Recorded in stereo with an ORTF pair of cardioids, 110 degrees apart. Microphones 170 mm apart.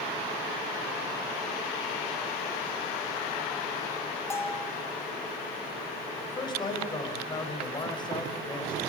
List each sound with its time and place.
4.3 s a bell: 15° left, 3.5 m
6.2 s a man speaking: 25° left, 5.5 m